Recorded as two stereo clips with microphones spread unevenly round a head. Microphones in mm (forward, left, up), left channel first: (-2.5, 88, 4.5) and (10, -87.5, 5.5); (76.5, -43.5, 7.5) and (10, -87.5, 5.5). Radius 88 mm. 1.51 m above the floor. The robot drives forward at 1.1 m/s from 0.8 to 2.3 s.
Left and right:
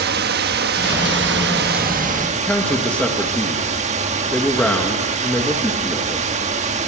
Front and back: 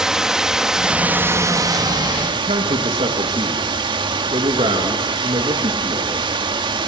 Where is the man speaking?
175° left, 2.0 m.